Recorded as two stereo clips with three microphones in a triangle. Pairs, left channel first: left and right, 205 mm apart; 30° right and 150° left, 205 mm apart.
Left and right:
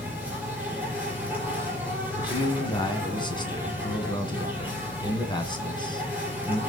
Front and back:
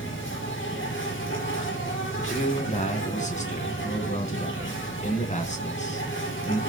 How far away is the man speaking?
About 3 m.